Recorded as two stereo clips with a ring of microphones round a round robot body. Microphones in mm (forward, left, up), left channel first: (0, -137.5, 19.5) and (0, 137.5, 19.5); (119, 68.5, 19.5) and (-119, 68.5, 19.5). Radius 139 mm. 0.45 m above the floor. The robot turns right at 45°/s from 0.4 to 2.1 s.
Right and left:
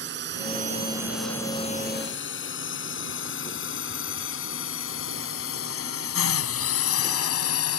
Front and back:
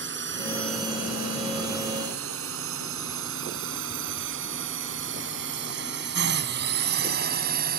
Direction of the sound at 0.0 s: 140° left.